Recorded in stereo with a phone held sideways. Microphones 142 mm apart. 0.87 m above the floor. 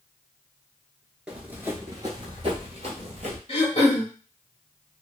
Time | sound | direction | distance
1.3 | running footsteps | 5° right (ahead or behind) | 0.9 m
3.5 | throat clearing | 40° left (ahead or behind) | 1.1 m